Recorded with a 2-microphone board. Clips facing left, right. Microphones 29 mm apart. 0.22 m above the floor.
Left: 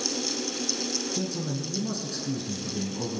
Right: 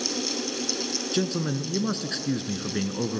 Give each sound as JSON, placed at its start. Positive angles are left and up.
{"t": 1.1, "sound": "a man speaking", "side_deg": -60, "distance_m": 2.0}